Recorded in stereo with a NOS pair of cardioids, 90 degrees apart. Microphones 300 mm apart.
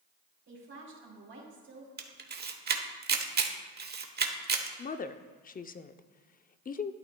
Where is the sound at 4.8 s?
30° left, 0.5 m.